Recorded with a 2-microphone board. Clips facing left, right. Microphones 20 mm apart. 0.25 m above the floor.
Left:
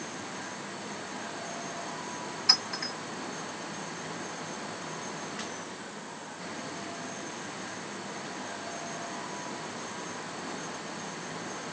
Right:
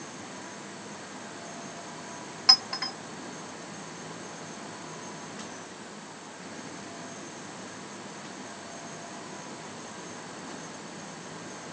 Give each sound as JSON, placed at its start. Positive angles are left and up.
{"t": 2.5, "sound": "a clink", "side_deg": -55, "distance_m": 1.5}